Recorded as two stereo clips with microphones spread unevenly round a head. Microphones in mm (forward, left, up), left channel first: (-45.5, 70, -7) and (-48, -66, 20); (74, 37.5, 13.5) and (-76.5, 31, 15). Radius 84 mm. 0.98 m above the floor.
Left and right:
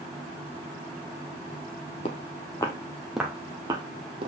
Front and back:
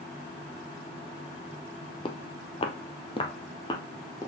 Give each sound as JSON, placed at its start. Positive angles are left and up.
{"t": 2.0, "sound": "footsteps", "azimuth_deg": 40, "distance_m": 1.3}